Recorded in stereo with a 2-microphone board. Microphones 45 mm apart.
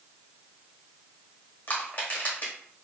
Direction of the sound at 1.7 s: 30° left (ahead or behind).